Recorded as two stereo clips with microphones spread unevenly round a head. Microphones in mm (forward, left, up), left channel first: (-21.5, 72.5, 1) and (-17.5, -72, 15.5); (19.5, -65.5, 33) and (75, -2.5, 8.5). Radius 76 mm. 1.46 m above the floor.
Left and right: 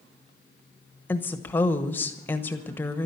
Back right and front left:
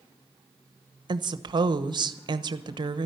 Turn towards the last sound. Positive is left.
turn(degrees=10)